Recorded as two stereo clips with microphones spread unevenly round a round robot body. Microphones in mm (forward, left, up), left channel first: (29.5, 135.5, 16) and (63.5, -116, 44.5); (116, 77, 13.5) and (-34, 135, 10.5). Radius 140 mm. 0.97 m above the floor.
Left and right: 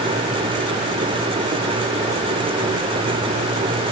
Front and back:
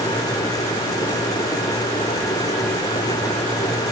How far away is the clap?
I don't hear a clap.